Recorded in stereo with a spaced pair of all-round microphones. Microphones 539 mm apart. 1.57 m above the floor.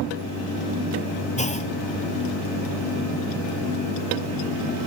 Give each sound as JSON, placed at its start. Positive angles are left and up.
{"t": 1.4, "sound": "a clunk", "side_deg": 15, "distance_m": 0.7}